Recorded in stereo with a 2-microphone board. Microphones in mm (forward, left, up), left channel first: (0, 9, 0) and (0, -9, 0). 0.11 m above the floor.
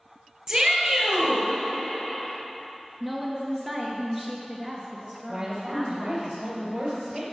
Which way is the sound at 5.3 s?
40° right (ahead or behind).